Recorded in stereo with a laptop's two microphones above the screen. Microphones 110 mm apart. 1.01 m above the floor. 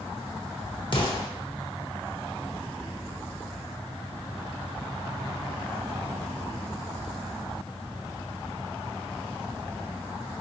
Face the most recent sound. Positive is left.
turn(degrees=45)  # may be behind; listen again after turning